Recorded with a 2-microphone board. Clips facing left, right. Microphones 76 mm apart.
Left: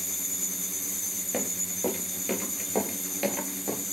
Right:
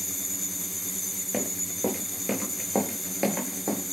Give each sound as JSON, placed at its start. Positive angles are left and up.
{"t": 1.3, "sound": "running footsteps", "side_deg": -5, "distance_m": 4.0}